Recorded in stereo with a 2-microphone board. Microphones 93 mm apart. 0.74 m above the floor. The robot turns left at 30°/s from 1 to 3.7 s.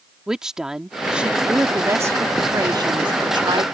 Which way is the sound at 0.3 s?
10° right.